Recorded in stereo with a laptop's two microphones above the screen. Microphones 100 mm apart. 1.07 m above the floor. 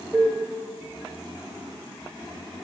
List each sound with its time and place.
0.1 s a cowbell: 20° right (ahead or behind), 0.7 m